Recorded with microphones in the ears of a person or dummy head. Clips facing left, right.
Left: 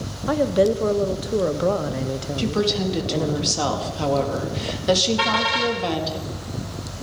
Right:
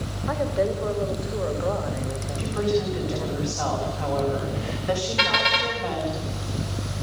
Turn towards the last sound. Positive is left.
turn(degrees=-20)  # may be behind; listen again after turning